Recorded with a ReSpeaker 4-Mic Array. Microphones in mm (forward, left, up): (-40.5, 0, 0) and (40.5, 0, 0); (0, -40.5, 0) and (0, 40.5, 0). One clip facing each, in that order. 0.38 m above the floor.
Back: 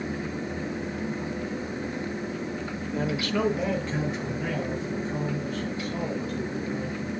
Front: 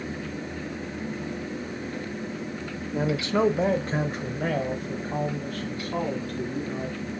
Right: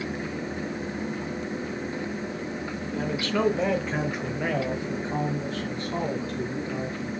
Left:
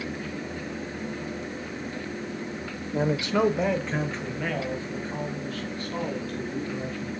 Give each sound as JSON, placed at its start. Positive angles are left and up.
{"t": 2.9, "sound": "a man speaking", "azimuth_deg": 70, "distance_m": 0.9}